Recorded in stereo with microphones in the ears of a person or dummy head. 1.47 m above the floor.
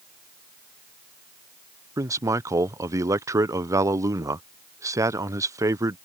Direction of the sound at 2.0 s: 15° right (ahead or behind).